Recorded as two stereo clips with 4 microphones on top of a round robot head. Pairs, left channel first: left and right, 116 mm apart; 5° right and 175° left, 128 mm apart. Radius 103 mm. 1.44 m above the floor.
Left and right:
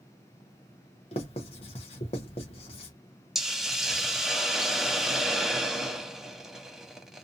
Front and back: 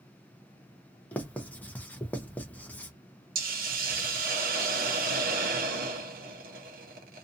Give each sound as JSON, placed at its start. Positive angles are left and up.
{"t": 1.1, "sound": "writing", "azimuth_deg": 70, "distance_m": 0.6}
{"t": 3.4, "sound": "a hiss", "azimuth_deg": -175, "distance_m": 0.7}